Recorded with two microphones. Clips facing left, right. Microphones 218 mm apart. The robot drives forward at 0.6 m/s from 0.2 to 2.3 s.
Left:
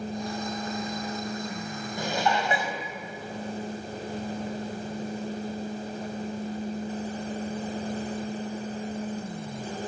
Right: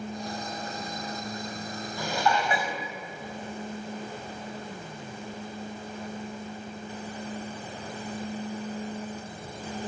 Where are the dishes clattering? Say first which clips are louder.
Even; 20° left (ahead or behind), 3 m.